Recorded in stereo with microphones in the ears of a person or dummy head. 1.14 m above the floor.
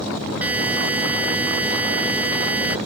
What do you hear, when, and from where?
0.4 s a buzzer: 10° right (ahead or behind)